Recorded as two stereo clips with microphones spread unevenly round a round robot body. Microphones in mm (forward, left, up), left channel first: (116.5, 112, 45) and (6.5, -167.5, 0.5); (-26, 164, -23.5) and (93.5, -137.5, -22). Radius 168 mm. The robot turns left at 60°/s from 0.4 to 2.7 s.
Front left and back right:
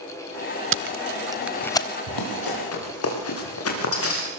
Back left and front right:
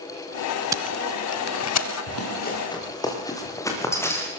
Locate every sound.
0.7 s tape being pulled: 145° right, 0.8 m; by 1.9 s 145° left, 0.8 m
2.1 s running footsteps: 75° left, 8.5 m; by 4.3 s 30° left, 7.5 m